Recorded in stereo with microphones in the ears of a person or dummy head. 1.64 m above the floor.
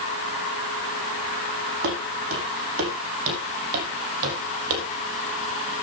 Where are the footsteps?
70° right (ahead or behind), 4.5 m; by 4.9 s 60° right (ahead or behind), 3 m.